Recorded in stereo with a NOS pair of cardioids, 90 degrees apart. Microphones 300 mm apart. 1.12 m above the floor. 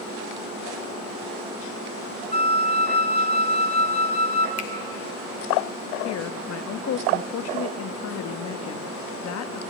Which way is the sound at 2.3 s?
20° left.